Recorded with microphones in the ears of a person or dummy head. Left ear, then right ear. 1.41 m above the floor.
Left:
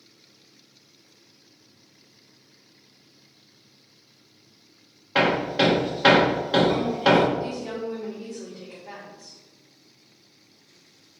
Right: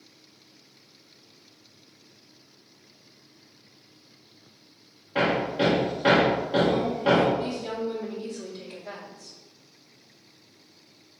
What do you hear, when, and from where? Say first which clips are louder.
5.2 s hammering: left 3 dB; 50° left (ahead or behind), 1.4 m
7.4 s a woman speaking: even; 30° right (ahead or behind), 3 m